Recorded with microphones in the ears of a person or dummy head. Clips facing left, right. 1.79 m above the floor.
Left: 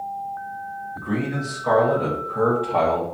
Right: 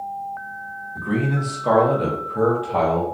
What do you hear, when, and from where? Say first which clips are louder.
0.9 s a man speaking: right 3 dB; 50° right (ahead or behind), 1.2 m; by 3.0 s 10° left (ahead or behind), 0.7 m